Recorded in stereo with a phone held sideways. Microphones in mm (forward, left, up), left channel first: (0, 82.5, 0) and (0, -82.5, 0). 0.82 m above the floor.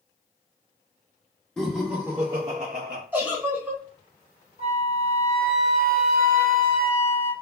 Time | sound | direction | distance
1.6 | laughter | 5° left (ahead or behind) | 0.8 m
3.1 | a giggle | 15° right (ahead or behind) | 1.2 m
4.6 | a flute | 70° left (ahead or behind) | 1.4 m